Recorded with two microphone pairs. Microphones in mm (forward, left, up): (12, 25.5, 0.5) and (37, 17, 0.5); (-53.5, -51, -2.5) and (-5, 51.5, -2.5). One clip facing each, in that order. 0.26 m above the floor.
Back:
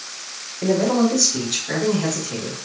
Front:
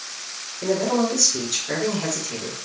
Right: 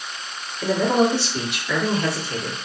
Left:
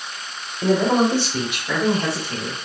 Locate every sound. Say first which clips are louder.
0.6 s a man speaking: back 3 dB, left 1 dB; 120° left, 1.3 m; by 2.6 s 30° left, 1.4 m